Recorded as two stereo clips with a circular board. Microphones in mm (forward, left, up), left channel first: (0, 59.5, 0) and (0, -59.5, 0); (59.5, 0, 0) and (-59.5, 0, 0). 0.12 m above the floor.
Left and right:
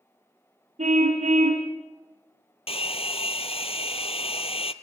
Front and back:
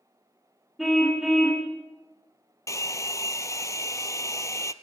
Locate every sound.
0.8 s a car horn: 90° right, 5.5 m
2.7 s a hair dryer: 60° left, 1.0 m